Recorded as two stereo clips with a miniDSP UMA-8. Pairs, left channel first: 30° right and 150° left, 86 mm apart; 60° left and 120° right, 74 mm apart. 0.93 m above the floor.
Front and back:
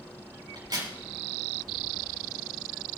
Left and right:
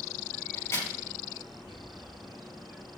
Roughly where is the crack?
Behind left.